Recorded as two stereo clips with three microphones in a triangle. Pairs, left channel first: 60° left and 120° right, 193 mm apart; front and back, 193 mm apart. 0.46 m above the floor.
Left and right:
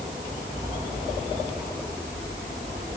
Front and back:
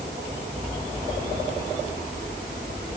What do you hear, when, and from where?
Only background noise.